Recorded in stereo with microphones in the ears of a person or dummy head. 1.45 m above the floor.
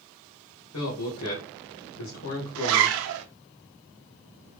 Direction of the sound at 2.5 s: 70° right (ahead or behind).